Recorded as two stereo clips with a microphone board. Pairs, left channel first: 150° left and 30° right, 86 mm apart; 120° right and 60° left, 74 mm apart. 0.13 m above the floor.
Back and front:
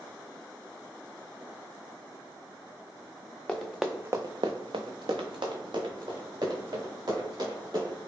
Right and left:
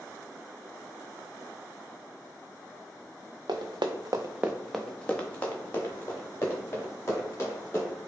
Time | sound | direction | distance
3.5 | running footsteps | 75° left | 0.8 m